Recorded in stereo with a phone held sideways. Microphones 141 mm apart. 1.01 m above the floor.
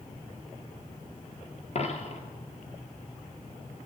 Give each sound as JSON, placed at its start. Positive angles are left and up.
{"t": 1.8, "sound": "a dropped coin", "side_deg": 50, "distance_m": 1.5}